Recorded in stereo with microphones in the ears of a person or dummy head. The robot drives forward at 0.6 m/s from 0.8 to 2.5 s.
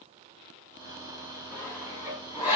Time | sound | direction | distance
1.5 | sawing | 10° right (ahead or behind) | 2.5 m